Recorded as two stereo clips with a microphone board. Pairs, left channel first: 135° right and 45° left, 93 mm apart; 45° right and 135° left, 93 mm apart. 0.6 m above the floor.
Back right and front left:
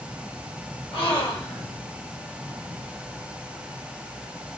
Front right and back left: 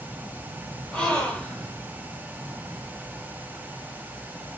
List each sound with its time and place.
0.9 s a gasp: 120° right, 1.1 m